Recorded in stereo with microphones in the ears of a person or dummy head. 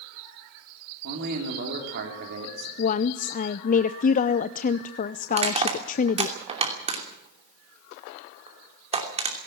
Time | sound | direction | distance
1.0 | a man speaking | 55° right (ahead or behind) | 3 m
2.8 | a woman speaking | 40° left (ahead or behind) | 0.6 m
5.3 | crushing | 30° right (ahead or behind) | 2.5 m